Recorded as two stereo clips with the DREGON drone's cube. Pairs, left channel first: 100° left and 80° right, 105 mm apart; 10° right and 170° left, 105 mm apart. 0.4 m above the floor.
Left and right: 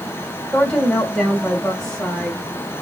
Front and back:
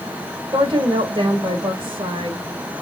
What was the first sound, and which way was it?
A woman speaking, 175° right.